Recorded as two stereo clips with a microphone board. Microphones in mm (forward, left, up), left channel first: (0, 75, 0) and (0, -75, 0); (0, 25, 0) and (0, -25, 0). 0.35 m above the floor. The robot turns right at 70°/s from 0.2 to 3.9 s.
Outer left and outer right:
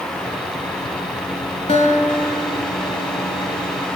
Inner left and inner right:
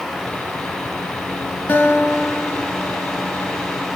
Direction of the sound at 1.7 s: 40° left.